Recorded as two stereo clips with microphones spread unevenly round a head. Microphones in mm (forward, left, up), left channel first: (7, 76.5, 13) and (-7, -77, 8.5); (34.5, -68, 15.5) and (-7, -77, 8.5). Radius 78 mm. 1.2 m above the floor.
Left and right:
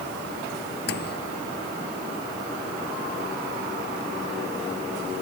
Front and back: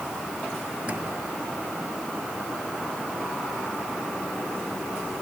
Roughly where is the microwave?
Left.